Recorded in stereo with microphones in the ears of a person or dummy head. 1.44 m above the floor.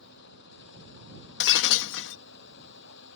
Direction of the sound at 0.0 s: 60° left (ahead or behind).